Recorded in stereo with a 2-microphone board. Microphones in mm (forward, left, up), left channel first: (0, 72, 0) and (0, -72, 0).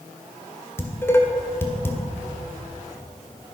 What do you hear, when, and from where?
0.8 s dishes clattering: 15° left (ahead or behind), 1.6 m